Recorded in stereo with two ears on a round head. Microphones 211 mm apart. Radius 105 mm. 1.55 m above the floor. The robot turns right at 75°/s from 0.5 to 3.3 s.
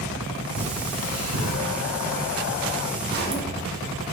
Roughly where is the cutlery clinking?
Right.